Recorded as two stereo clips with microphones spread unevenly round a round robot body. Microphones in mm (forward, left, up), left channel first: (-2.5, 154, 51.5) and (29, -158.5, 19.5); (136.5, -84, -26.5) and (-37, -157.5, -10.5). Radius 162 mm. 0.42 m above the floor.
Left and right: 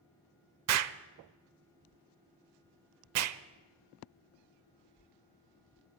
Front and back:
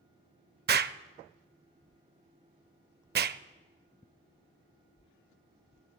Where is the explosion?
120° right, 0.6 m.